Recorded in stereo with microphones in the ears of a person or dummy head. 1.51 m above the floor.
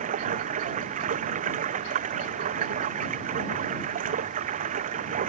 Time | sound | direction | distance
0.0 | running water | 40° right (ahead or behind) | ?